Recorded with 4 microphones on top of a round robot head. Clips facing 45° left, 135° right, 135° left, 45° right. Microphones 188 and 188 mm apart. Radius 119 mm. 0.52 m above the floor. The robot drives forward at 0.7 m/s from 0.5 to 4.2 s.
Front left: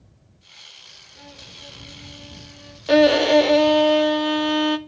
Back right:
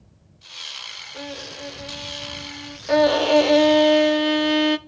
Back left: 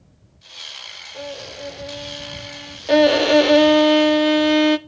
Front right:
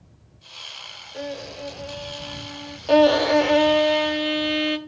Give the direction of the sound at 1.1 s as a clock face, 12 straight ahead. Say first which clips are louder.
Back right 12 dB, front right 1 dB; 4 o'clock.